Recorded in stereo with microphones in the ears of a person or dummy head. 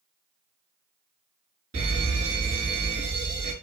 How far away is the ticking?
No ticking in this recording.